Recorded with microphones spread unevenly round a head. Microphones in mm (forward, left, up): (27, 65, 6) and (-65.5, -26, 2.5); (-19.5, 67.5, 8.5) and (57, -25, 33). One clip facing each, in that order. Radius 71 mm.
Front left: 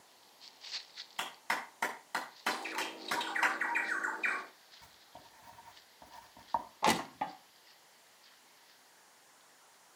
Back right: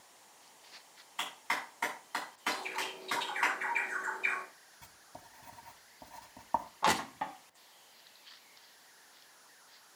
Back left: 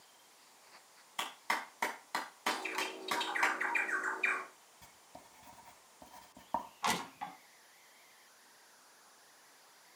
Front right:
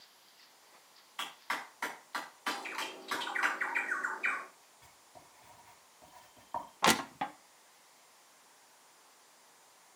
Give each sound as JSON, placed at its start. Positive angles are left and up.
{"t": 1.2, "sound": "a clap", "azimuth_deg": 90, "distance_m": 6.0}
{"t": 2.5, "sound": "a bird", "azimuth_deg": 65, "distance_m": 4.5}
{"t": 4.8, "sound": "writing", "azimuth_deg": 165, "distance_m": 2.0}
{"t": 6.8, "sound": "crushing", "azimuth_deg": -30, "distance_m": 1.0}